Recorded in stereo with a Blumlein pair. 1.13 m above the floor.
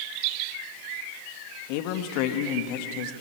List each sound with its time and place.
1.7 s a man speaking: 45° left, 2.0 m